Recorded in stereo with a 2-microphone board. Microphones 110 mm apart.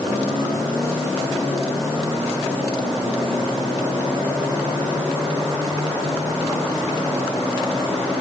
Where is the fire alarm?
I don't hear a fire alarm.